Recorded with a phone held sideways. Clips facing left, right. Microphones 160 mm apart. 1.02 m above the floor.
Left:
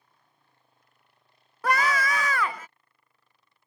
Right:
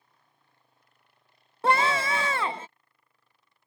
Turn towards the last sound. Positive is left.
turn(degrees=-25)  # may be behind; listen again after turning